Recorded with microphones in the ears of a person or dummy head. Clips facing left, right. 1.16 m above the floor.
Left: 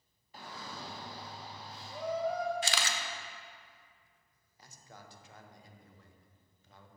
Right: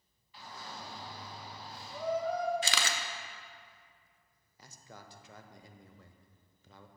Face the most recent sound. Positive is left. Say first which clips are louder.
# right 2 dB
turn(degrees=-60)  # may be behind; listen again after turning